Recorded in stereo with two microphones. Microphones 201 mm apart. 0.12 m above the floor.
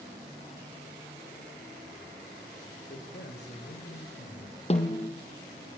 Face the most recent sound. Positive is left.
turn(degrees=35)  # may be behind; listen again after turning